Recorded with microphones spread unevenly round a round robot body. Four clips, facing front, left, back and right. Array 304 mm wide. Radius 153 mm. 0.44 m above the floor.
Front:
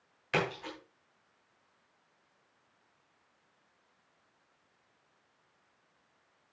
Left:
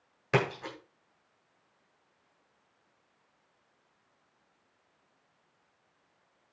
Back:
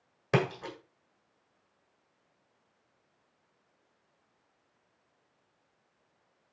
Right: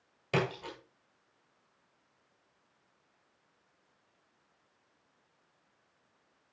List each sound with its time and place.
0.3 s a splash: 165° left, 6.5 m